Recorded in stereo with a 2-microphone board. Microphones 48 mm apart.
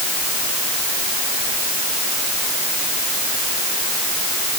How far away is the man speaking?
No man speaking in this recording.